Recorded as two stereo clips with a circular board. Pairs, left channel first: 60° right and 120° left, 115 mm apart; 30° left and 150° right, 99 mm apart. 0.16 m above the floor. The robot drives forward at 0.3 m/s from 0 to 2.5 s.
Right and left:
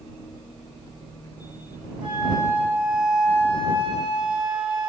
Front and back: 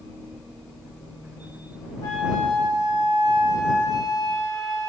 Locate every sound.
2.0 s a flute: 75° left, 3.5 m; by 4.9 s 80° left, 3.5 m